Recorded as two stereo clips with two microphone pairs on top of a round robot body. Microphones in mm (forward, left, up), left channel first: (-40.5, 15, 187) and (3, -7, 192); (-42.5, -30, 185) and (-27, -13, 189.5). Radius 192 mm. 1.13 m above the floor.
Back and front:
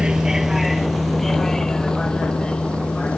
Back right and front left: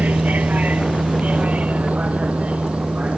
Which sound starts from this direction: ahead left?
A vehicle, at 0.0 s.